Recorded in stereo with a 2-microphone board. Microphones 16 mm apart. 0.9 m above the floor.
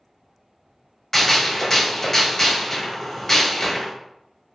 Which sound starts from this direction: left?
A gunshot, at 1.1 s.